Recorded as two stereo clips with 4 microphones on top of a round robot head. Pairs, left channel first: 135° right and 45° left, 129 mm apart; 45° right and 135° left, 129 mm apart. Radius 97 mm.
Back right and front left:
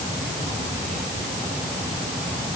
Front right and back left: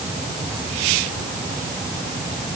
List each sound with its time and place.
Only background noise.